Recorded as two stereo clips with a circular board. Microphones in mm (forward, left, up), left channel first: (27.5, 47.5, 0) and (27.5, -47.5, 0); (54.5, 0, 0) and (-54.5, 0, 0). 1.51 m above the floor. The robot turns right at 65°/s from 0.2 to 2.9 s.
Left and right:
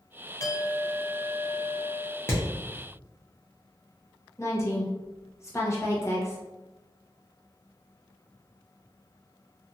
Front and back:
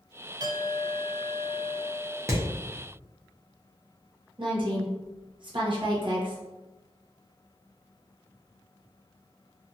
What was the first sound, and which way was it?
A clink, 135° left.